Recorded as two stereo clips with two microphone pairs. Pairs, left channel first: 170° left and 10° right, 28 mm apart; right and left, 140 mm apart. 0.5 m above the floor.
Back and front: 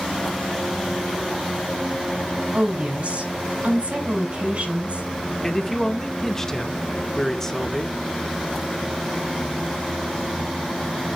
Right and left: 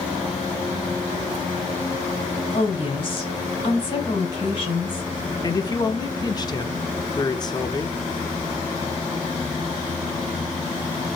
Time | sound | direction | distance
2.5 | a woman speaking | 40° right | 3.5 m
5.4 | a man speaking | 125° right | 0.9 m